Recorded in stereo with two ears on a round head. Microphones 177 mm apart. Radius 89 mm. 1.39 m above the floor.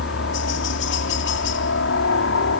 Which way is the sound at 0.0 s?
65° left (ahead or behind).